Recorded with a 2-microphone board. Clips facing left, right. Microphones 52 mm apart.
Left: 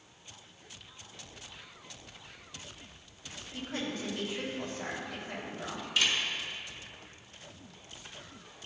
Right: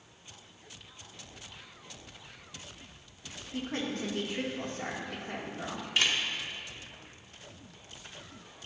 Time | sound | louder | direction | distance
3.5 | a woman speaking | right 2 dB | 50° right (ahead or behind) | 1.9 m
6.0 | a camera shutter | right 1 dB | 35° right (ahead or behind) | 1.2 m